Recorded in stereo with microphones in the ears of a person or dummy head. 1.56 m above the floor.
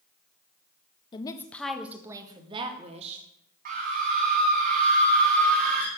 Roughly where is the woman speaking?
Left.